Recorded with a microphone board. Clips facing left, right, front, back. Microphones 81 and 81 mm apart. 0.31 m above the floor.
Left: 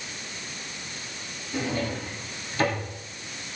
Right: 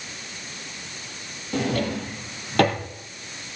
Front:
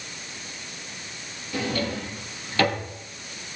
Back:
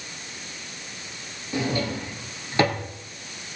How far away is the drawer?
About 2.5 m.